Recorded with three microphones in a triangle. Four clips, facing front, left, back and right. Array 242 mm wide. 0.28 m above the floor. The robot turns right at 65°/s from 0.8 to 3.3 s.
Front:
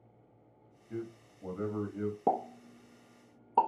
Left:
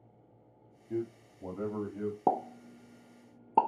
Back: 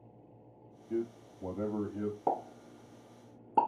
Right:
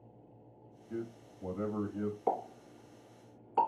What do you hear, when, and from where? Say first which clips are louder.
0.9 s a man speaking: left 5 dB, back 6 dB; 130° left, 1.0 m; by 2.2 s 145° right, 1.0 m
2.3 s a pop: left 7 dB, front 5 dB; 60° left, 0.7 m; by 3.7 s 125° left, 0.7 m